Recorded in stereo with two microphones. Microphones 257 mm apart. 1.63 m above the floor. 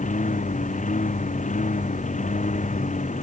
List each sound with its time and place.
0.0 s a lawn mower: 30° left (ahead or behind)